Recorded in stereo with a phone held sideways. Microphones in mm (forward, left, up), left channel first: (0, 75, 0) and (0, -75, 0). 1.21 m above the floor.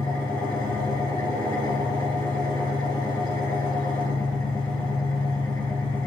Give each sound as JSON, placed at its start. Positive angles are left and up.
{"t": 0.0, "sound": "an engine running", "side_deg": 25, "distance_m": 5.5}